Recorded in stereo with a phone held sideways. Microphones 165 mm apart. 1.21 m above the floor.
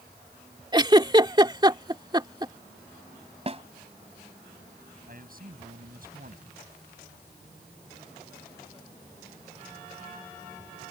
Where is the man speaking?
60° right (ahead or behind).